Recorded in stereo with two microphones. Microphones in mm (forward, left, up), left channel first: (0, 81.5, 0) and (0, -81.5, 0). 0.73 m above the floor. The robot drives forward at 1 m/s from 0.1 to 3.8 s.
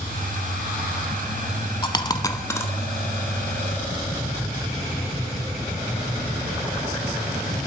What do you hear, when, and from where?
1.8 s a dropped coin: 30° left (ahead or behind), 0.6 m; by 2.7 s 15° left (ahead or behind), 1.1 m